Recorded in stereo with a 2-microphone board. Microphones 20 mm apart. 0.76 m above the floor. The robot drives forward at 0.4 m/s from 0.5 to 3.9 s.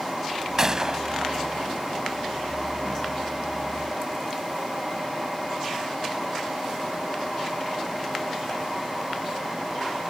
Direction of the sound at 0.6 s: 25° right (ahead or behind).